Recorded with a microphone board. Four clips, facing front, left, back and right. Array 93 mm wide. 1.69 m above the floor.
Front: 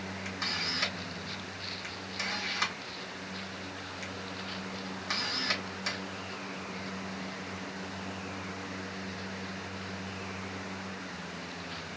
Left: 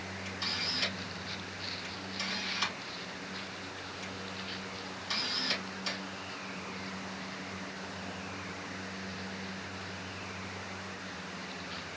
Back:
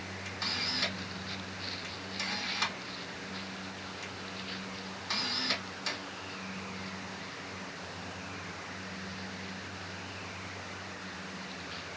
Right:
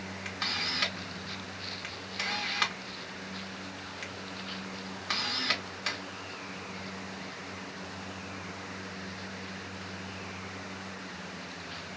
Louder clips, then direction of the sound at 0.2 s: Right 5 dB, front 1 dB; 75° right.